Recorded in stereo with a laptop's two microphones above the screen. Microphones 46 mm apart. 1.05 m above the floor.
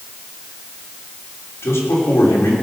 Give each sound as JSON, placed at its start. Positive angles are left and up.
{"t": 1.6, "sound": "a man speaking", "side_deg": 70, "distance_m": 3.5}